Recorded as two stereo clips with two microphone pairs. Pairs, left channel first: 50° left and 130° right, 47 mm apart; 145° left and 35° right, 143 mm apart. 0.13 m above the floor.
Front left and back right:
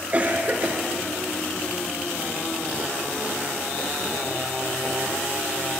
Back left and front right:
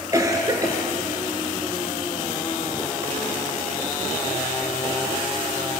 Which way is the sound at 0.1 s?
90° right.